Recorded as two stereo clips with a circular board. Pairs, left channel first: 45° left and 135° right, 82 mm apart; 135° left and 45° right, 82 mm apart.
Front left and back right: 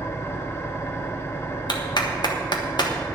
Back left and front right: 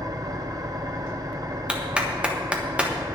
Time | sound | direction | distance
0.0 | an engine running | 10° right | 0.9 m
1.7 | a clap | 30° left | 1.3 m